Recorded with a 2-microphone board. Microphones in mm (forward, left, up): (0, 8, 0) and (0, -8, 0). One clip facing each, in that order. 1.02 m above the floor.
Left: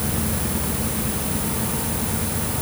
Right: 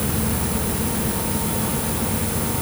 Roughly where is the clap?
No clap in this recording.